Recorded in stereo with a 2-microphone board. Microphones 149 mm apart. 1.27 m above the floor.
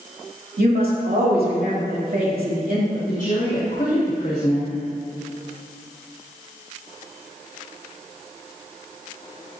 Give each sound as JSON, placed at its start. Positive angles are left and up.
{"t": 0.6, "sound": "a woman speaking", "side_deg": -85, "distance_m": 2.5}
{"t": 2.9, "sound": "a woman speaking", "side_deg": 55, "distance_m": 1.9}